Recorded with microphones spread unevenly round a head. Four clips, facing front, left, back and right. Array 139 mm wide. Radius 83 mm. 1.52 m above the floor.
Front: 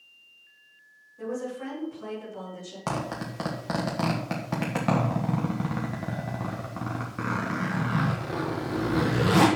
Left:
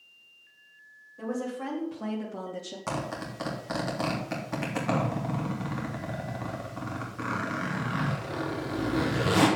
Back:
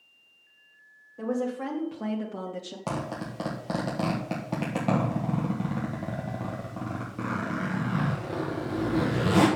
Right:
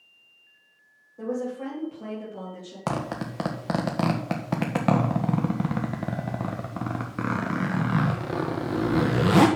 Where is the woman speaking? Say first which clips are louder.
Right 3 dB, back 4 dB; 150° right, 3 m; by 2.8 s 165° left, 3 m.